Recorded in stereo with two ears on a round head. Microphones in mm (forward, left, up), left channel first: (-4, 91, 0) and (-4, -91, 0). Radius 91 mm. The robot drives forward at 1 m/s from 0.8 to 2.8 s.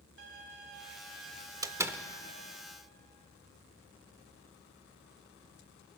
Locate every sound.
0.2 s a violin: 60° right (ahead or behind), 1.8 m; by 2.6 s 40° right (ahead or behind), 2.5 m
1.6 s a door slam: 15° right (ahead or behind), 0.7 m; by 2.0 s 10° right (ahead or behind), 1.1 m